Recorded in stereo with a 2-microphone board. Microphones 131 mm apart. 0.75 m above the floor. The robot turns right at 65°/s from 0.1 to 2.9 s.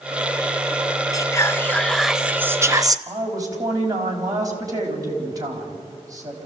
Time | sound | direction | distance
1.1 | whispering | 120° left | 0.9 m
3.1 | a woman speaking | 30° right (ahead or behind) | 4 m